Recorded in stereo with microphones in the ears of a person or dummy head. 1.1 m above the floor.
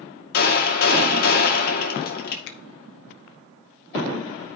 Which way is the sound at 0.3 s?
60° left (ahead or behind).